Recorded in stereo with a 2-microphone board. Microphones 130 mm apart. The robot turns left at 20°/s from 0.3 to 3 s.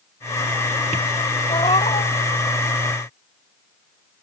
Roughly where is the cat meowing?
Left.